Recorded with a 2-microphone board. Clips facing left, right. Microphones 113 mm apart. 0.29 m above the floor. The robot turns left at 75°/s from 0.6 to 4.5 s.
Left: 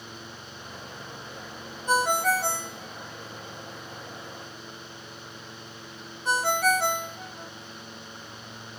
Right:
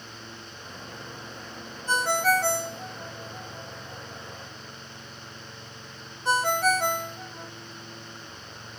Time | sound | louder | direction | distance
1.9 | a ringtone | even | 15° left (ahead or behind) | 1.3 m